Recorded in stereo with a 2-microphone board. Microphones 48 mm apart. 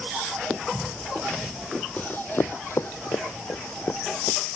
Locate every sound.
2.0 s running footsteps: 35° left (ahead or behind); by 4.6 s 70° left (ahead or behind)